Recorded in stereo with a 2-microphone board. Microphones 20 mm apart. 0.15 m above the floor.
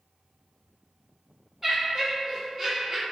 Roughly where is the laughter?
Centre.